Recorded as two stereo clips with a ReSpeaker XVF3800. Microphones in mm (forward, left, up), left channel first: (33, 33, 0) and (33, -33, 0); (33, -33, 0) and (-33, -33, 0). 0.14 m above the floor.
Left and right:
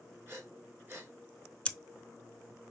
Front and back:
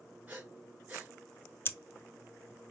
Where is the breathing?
120° right, 1.8 m.